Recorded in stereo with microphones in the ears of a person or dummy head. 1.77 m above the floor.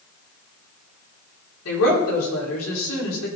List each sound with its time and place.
1.6 s a woman speaking: 85° left, 5 m